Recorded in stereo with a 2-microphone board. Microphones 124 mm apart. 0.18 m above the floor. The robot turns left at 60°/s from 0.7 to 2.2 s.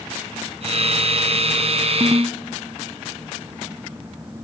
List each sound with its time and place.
2.0 s a ringtone: 25° right (ahead or behind), 0.7 m; by 2.4 s 20° right (ahead or behind), 0.7 m